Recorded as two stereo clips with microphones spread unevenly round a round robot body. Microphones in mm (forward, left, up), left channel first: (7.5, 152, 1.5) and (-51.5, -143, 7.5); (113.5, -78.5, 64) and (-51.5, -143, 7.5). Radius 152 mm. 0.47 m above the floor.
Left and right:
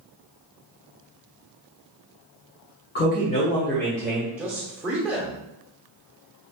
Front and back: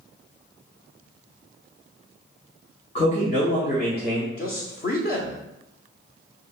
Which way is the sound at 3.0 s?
80° left.